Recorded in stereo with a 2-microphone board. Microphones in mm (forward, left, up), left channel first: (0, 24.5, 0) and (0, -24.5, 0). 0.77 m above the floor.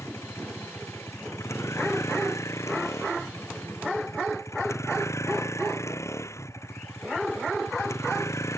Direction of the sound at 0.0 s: 85° left.